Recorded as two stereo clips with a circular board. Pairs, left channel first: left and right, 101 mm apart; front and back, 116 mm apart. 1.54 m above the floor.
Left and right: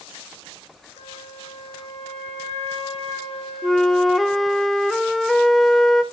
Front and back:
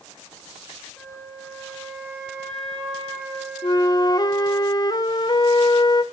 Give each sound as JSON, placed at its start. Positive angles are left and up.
{"t": 1.0, "sound": "a flute", "azimuth_deg": 80, "distance_m": 5.5}
{"t": 3.6, "sound": "a flute", "azimuth_deg": 0, "distance_m": 0.7}